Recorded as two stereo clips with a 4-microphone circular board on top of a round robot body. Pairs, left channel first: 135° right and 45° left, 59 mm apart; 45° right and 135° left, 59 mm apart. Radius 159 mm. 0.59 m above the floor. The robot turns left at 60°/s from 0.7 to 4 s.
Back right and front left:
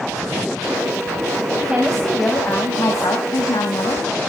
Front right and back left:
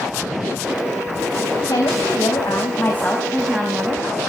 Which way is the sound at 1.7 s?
30° right.